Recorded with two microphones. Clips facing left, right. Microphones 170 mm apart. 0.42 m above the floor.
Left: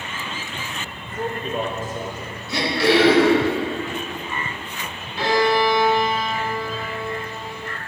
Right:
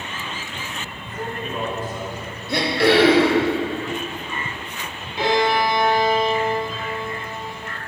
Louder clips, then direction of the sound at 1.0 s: Left 3 dB; 30° left (ahead or behind).